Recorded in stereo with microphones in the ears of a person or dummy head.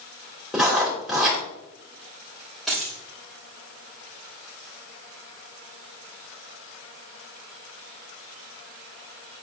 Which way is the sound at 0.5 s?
5° right (ahead or behind).